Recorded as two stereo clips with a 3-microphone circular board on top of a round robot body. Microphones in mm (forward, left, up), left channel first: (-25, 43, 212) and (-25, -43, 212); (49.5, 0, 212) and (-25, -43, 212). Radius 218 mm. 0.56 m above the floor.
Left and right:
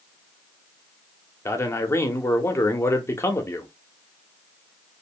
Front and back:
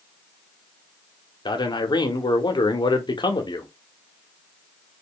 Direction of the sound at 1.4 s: 35° left.